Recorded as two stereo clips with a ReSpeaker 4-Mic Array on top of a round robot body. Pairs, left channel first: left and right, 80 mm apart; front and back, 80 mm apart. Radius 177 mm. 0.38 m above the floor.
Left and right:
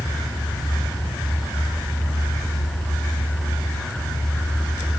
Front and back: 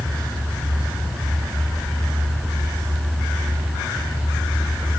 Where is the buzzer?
I don't hear a buzzer.